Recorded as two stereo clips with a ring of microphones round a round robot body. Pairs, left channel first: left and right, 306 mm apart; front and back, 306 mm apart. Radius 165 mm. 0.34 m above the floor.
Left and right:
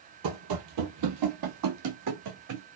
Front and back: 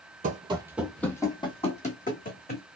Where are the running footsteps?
115° right, 0.7 m; by 2.7 s 60° right, 1.6 m.